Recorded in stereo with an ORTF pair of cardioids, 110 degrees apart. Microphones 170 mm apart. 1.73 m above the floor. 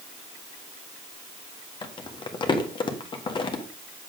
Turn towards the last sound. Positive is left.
turn(degrees=30)